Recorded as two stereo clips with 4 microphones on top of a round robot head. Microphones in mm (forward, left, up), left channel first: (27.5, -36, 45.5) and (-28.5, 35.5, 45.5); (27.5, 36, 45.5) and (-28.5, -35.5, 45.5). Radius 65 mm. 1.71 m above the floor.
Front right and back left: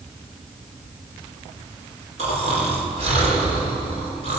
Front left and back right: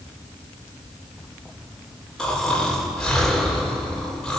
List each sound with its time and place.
2.2 s snoring: 135° left, 5.5 m